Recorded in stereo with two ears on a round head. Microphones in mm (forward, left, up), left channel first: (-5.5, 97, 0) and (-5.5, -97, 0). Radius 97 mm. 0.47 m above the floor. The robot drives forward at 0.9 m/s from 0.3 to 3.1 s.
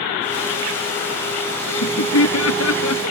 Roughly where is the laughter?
Left.